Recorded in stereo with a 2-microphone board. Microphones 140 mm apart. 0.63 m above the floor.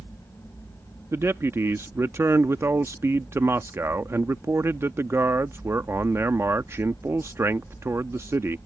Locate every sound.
1.1 s a man speaking: 20° right (ahead or behind)